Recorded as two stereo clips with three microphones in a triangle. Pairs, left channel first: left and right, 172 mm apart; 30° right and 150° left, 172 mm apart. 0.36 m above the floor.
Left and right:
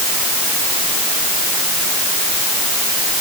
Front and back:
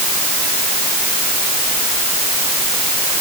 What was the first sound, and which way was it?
Only background noise.